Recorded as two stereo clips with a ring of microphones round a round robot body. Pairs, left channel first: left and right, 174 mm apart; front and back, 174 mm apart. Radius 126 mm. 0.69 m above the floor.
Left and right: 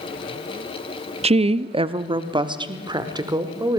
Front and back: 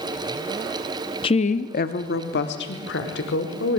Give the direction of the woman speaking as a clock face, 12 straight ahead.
2 o'clock.